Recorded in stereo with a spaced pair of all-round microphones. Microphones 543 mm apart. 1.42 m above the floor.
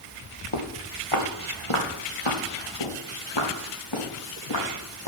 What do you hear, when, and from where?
0.5 s footsteps: 60° left (ahead or behind), 2.5 m; by 5.1 s 40° left (ahead or behind), 4.5 m